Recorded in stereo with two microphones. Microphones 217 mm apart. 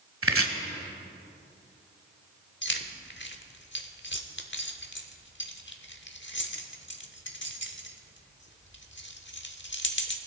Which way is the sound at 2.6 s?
55° left (ahead or behind).